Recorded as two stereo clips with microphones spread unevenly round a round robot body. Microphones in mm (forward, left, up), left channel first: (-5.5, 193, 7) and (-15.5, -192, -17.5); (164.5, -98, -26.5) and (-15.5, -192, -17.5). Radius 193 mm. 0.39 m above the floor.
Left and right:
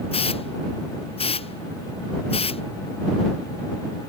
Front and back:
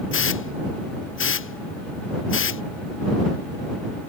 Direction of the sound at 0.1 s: 10° left.